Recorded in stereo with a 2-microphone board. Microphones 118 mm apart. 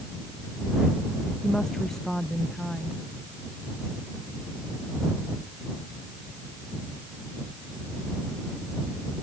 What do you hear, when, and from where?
1.4 s a woman speaking: 5° left (ahead or behind)